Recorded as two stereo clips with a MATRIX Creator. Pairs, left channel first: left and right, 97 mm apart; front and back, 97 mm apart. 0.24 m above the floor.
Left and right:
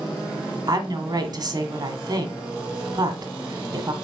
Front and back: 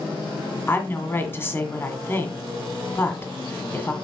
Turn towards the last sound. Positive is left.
turn(degrees=-60)